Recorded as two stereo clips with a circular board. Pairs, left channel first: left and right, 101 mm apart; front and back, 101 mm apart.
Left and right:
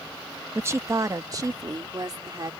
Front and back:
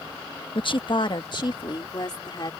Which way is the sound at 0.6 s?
25° right.